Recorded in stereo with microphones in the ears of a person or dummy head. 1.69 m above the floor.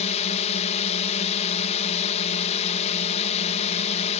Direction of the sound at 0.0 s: 35° left (ahead or behind).